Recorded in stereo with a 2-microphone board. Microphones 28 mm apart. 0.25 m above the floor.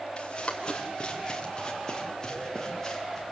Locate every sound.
0.2 s running footsteps: 35° left (ahead or behind), 4.5 m; by 3.3 s 20° left (ahead or behind), 6 m